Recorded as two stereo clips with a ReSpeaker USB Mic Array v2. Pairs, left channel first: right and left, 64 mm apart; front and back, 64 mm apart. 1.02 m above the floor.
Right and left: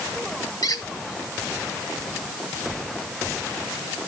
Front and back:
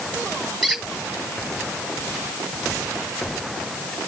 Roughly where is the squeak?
Right.